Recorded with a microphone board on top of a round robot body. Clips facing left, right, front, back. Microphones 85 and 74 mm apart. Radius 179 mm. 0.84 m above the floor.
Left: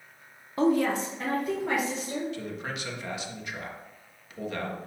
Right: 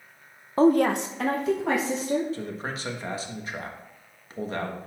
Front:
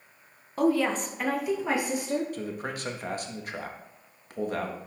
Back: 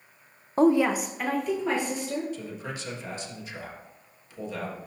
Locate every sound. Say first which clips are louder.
0.6 s a woman speaking: right 5 dB, back 4 dB; 135° right, 0.8 m; by 2.2 s 75° right, 2 m
2.3 s a man speaking: right 2 dB, front 3 dB; 35° right, 1.4 m